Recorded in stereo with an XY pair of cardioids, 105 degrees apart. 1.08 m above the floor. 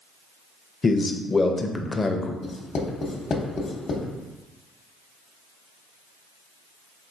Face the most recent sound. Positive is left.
turn(degrees=40)